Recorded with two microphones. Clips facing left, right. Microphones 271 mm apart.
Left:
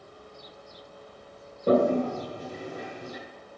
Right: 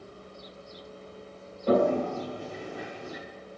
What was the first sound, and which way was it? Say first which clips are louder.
A toilet flushing: left 2 dB; 40° left (ahead or behind).